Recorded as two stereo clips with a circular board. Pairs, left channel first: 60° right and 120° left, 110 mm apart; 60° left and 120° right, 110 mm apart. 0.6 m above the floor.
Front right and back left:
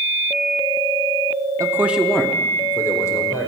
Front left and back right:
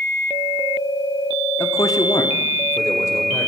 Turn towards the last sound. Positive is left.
turn(degrees=0)